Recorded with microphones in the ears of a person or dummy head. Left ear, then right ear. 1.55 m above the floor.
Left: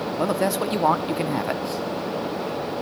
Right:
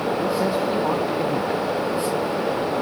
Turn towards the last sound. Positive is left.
turn(degrees=30)  # may be behind; listen again after turning